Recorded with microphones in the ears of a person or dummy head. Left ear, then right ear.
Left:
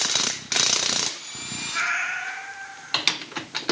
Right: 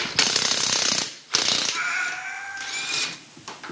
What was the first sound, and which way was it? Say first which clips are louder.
A cat meowing: left 1 dB; 60° right (ahead or behind).